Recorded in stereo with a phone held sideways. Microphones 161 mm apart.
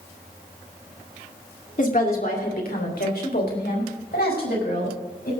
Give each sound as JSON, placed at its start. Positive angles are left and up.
{"t": 1.8, "sound": "a woman speaking", "side_deg": 55, "distance_m": 2.5}